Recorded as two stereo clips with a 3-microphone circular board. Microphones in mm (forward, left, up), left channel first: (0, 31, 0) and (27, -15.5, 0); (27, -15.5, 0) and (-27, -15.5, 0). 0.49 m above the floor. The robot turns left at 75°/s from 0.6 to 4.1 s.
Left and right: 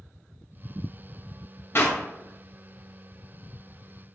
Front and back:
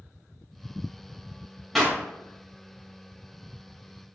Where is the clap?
90° left, 2 m; by 2.0 s 70° left, 2 m.